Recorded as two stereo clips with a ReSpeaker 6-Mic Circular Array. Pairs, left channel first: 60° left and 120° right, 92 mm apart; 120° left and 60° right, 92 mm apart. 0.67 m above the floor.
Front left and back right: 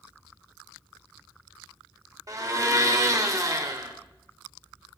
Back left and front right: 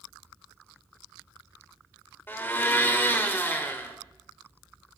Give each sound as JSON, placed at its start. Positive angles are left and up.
{"t": 2.3, "sound": "a blender", "azimuth_deg": -175, "distance_m": 1.2}